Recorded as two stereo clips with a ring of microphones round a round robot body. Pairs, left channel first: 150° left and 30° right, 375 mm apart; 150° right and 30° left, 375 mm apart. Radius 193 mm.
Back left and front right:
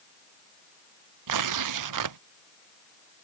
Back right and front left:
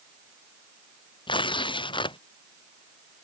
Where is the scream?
No scream in this recording.